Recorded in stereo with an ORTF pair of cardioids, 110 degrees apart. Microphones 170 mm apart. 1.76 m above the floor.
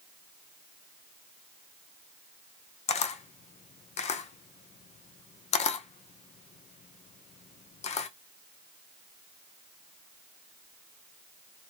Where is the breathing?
I don't hear breathing.